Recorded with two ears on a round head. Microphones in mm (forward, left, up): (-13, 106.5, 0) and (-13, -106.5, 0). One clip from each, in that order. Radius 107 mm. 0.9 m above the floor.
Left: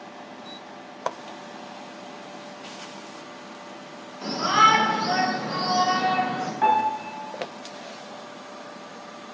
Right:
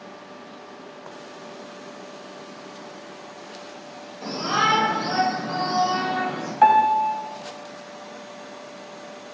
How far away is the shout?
About 2.5 m.